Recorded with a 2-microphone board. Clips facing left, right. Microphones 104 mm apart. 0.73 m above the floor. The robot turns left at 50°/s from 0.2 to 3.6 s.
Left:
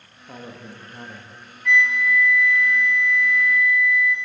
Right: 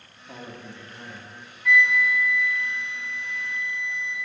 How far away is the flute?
About 0.8 m.